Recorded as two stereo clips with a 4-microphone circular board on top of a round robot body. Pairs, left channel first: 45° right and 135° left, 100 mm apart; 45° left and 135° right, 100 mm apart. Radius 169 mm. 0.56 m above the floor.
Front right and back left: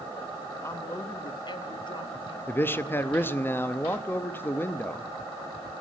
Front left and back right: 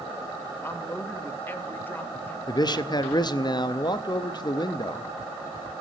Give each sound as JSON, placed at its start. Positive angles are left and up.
{"t": 0.6, "sound": "a man speaking", "azimuth_deg": -5, "distance_m": 1.0}
{"t": 2.5, "sound": "a man speaking", "azimuth_deg": 15, "distance_m": 0.8}